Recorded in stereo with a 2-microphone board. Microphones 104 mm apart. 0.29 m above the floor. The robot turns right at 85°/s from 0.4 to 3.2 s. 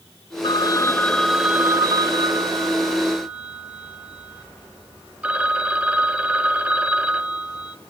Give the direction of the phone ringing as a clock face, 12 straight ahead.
9 o'clock.